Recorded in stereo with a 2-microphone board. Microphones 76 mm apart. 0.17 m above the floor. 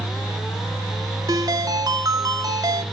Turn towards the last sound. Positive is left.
turn(degrees=-50)  # may be behind; listen again after turning